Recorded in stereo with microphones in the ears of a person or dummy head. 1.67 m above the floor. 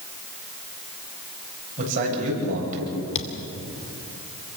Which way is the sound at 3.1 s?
35° left (ahead or behind).